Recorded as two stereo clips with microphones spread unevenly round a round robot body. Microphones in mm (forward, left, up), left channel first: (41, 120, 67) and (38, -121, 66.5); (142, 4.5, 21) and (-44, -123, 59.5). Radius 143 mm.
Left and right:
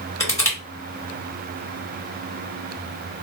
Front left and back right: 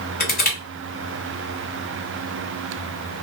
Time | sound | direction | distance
0.2 | crushing | 15° left | 1.9 m